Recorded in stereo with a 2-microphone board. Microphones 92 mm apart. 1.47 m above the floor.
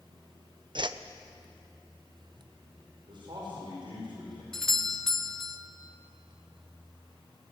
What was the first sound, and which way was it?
A whoosh, 60° right (ahead or behind).